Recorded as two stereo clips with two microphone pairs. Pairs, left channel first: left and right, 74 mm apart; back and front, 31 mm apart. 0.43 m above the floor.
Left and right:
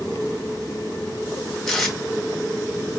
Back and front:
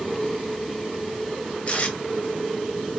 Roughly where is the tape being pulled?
Behind.